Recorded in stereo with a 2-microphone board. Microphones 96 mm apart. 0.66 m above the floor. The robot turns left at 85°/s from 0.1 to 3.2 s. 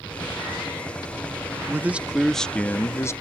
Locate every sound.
1.7 s a man speaking: 20° right (ahead or behind); by 3.1 s 30° left (ahead or behind)